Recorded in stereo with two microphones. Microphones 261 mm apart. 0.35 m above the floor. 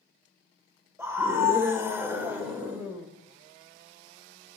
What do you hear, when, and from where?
1.0 s a scream: 10° right (ahead or behind), 1.3 m; by 3.1 s 5° right (ahead or behind), 1.4 m